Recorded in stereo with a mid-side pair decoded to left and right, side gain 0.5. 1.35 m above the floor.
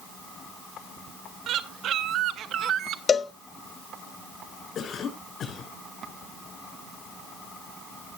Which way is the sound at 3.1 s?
30° left.